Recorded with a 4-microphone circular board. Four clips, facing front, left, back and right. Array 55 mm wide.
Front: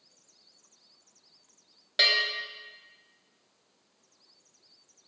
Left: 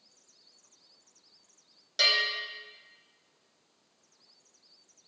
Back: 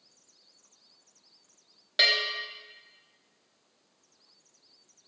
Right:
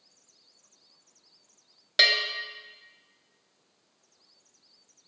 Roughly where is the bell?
Right.